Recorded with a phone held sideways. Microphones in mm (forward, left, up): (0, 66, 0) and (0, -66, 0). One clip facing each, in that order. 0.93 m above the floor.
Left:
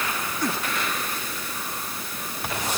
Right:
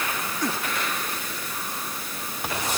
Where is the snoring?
No snoring in this recording.